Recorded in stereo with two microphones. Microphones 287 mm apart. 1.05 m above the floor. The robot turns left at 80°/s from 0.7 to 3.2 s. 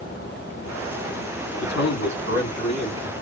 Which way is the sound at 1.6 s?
125° left.